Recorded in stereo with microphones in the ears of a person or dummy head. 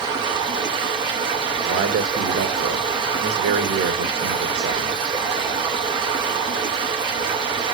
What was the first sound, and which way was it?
Running water, 25° right (ahead or behind).